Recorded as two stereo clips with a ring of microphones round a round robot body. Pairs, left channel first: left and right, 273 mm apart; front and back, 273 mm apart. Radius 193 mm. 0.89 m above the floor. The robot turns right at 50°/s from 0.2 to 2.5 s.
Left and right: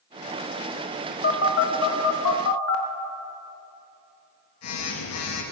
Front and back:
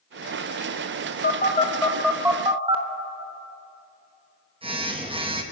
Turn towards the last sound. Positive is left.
turn(degrees=110)